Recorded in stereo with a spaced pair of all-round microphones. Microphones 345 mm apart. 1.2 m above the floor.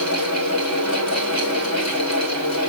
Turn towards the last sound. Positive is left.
turn(degrees=50)  # may be behind; listen again after turning